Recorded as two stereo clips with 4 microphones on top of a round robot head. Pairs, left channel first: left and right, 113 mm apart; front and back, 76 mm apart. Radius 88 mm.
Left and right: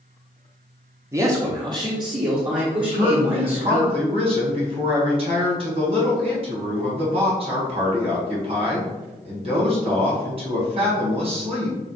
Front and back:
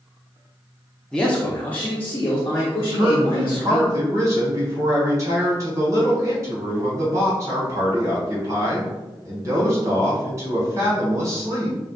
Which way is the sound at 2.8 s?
130° right.